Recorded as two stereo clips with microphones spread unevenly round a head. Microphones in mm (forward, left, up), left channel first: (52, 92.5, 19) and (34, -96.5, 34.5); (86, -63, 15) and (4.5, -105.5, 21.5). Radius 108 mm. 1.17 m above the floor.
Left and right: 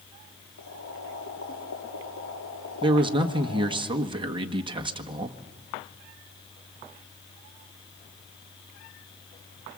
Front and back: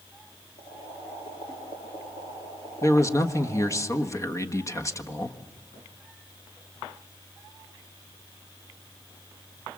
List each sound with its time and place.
0.6 s boiling: 75° left, 8 m
2.8 s a man speaking: 30° right, 1.5 m